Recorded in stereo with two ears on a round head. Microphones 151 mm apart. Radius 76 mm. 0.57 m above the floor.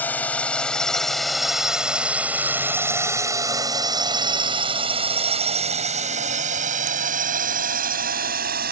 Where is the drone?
10° left (ahead or behind); by 8.7 s 60° right (ahead or behind).